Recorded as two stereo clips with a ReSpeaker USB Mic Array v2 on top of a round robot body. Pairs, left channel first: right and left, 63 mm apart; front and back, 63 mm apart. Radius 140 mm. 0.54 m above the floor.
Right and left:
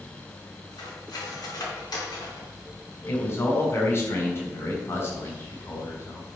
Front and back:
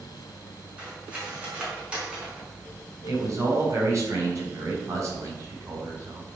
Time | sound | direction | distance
0.8 | cutlery clinking | 110° right | 4 m
3.1 | a man speaking | 140° right | 4.5 m